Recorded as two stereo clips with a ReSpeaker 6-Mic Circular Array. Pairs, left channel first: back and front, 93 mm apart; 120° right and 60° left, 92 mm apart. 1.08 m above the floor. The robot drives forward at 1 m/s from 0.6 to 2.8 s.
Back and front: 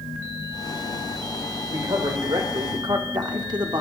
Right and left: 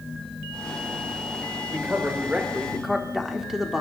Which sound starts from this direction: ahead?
A man speaking, at 1.7 s.